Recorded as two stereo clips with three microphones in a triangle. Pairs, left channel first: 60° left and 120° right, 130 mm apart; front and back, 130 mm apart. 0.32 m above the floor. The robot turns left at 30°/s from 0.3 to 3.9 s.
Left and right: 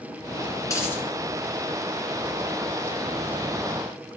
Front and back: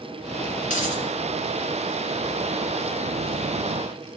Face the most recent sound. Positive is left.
turn(degrees=-100)